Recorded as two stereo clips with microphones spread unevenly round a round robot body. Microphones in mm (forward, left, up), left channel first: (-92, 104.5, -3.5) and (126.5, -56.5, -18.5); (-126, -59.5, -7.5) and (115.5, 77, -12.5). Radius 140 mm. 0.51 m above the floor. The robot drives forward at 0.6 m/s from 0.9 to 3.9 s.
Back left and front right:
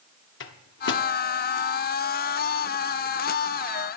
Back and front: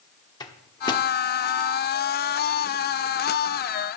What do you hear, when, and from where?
0.4 s a microwave: 140° left, 1.2 m; by 1.1 s 145° left, 1.2 m